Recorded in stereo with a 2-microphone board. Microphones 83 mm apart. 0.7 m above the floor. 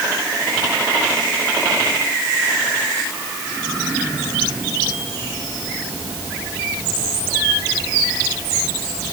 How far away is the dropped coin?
I don't hear a dropped coin.